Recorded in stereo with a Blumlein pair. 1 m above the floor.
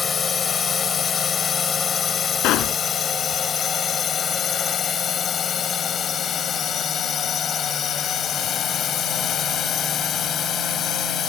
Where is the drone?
20° left; by 11.3 s 30° left.